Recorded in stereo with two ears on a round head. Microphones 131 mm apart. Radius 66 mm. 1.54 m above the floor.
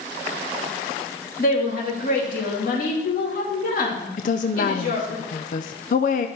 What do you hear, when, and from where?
1.4 s a woman speaking: 55° left (ahead or behind), 2.5 m
4.2 s a woman speaking: 55° left (ahead or behind), 0.5 m